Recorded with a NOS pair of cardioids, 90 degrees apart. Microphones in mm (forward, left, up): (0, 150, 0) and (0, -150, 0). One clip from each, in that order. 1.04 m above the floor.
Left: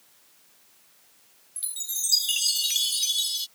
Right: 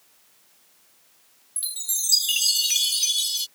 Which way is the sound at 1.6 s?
20° right.